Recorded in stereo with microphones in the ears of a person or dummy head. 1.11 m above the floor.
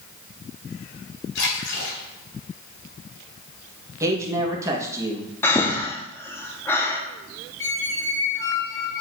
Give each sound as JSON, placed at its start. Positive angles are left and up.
{"t": 1.4, "sound": "a splash", "side_deg": 70, "distance_m": 2.5}
{"t": 4.0, "sound": "a man speaking", "side_deg": -15, "distance_m": 1.2}
{"t": 5.4, "sound": "breathing", "side_deg": 15, "distance_m": 0.5}
{"t": 7.6, "sound": "a squeak", "side_deg": 15, "distance_m": 0.6}